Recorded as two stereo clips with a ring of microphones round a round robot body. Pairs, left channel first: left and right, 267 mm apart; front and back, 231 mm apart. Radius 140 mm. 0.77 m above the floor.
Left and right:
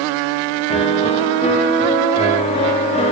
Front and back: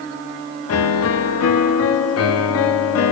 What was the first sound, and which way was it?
A piano, 20° left.